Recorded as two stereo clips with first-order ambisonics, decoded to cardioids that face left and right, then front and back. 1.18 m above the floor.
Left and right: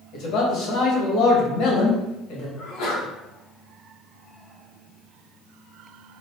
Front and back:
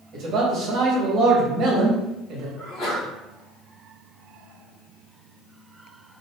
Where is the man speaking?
130° left, 1.2 m.